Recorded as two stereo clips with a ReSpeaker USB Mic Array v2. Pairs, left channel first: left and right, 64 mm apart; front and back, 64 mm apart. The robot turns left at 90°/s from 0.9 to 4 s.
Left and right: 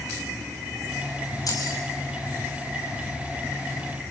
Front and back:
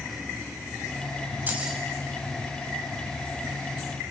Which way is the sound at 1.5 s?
120° left.